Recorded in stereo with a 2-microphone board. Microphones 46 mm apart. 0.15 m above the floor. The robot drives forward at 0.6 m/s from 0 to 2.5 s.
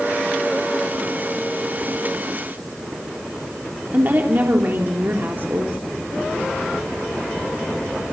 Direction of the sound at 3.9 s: 45° right (ahead or behind).